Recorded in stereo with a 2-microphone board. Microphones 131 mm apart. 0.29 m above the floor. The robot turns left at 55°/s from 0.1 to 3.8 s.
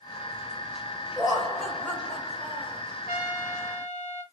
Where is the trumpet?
95° left, 0.6 m; by 4.2 s 55° left, 0.6 m.